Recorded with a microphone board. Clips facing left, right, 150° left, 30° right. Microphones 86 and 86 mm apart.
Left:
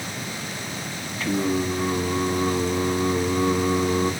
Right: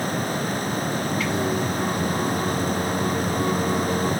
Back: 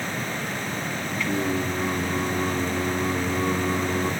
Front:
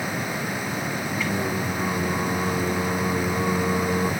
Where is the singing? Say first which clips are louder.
Left 5 dB, back 3 dB; 45° left, 1.3 m.